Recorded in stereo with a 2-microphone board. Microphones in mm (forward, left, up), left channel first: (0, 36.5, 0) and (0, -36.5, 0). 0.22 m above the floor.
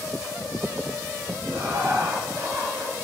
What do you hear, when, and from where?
1.5 s laughter: 50° right (ahead or behind), 1.8 m